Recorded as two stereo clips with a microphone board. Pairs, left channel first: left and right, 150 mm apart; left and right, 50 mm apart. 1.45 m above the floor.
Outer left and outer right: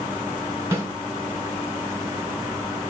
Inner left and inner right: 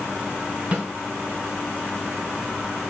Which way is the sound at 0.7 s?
20° right (ahead or behind).